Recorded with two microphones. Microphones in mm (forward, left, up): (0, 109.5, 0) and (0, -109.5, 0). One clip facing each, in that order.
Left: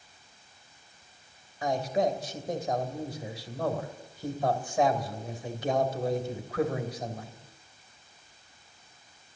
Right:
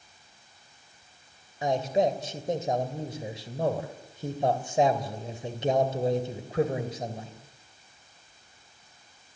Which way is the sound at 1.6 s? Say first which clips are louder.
Right 2 dB; 25° right (ahead or behind).